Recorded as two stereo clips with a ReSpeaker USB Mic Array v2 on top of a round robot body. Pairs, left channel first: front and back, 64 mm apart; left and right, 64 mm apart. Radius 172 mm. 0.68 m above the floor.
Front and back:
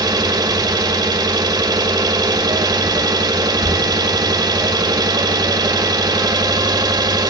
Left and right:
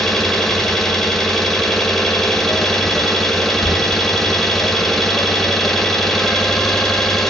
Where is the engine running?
175° left, 1.5 m.